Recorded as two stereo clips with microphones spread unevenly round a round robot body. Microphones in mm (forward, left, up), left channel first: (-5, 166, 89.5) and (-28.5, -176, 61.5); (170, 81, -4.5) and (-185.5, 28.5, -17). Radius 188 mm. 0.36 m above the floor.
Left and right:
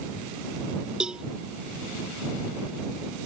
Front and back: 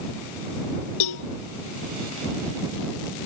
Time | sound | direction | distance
1.0 | a cowbell | 5° right | ?